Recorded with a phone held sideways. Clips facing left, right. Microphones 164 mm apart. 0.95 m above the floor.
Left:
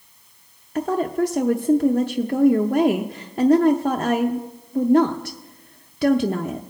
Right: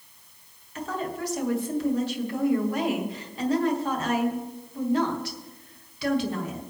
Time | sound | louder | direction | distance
0.8 | a woman speaking | left 10 dB | 45° left (ahead or behind) | 0.6 m